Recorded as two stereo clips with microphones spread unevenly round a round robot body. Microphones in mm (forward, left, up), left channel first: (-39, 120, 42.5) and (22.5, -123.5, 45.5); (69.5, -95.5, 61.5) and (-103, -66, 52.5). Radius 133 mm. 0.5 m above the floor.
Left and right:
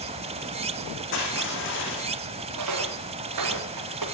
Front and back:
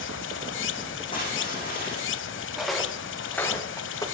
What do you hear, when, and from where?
0.0 s running water: 10° right, 0.9 m
1.1 s crushing: 60° left, 8.5 m
2.6 s footsteps: 100° right, 4.5 m; by 4.0 s 80° right, 5 m